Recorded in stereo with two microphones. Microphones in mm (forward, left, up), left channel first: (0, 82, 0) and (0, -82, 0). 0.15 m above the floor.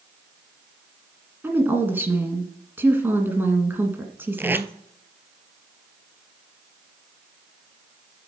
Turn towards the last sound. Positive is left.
turn(degrees=-15)  # may be behind; listen again after turning